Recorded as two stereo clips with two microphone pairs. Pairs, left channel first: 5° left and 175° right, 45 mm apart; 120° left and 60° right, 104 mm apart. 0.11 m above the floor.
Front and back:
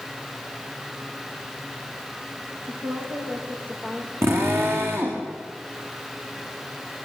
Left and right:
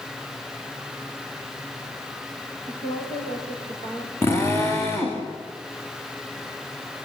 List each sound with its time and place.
2.6 s a woman speaking: 140° left, 7 m
4.2 s a drill: 175° right, 6 m